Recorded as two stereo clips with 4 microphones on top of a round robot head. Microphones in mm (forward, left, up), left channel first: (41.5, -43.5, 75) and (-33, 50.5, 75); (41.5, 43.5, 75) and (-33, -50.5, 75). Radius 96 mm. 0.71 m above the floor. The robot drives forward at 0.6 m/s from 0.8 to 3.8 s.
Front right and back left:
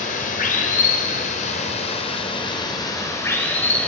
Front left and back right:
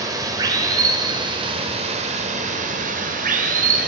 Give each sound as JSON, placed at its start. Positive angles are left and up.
{"t": 0.0, "sound": "running water", "azimuth_deg": -65, "distance_m": 1.6}